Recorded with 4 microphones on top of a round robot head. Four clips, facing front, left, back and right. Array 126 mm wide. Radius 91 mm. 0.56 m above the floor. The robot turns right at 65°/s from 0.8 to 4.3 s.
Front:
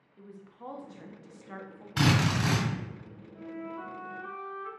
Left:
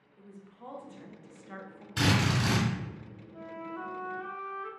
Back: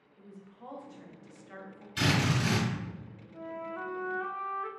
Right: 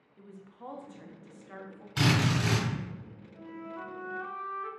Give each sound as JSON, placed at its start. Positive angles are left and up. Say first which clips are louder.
{"t": 0.2, "sound": "a woman speaking", "louder": "right 2 dB, front 3 dB", "azimuth_deg": -30, "distance_m": 0.6}
{"t": 2.0, "sound": "a drill", "louder": "even, front 2 dB", "azimuth_deg": -15, "distance_m": 1.9}
{"t": 3.3, "sound": "a flute", "louder": "left 2 dB, back 1 dB", "azimuth_deg": 130, "distance_m": 0.5}